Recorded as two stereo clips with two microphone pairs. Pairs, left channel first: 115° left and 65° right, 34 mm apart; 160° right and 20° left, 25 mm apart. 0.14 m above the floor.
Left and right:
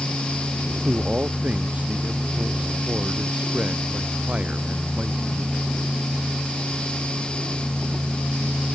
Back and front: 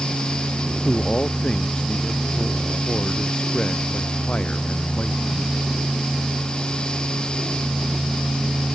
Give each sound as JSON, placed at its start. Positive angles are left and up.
{"t": 0.8, "sound": "a man speaking", "azimuth_deg": -115}